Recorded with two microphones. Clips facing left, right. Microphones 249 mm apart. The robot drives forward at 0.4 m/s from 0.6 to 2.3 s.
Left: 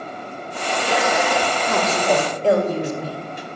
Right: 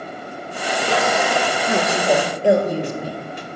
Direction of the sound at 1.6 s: 15° right (ahead or behind).